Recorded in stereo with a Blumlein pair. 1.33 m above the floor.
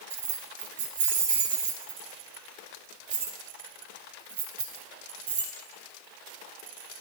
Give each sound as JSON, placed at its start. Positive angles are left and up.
{"t": 0.1, "sound": "keys jangling", "azimuth_deg": -60, "distance_m": 1.3}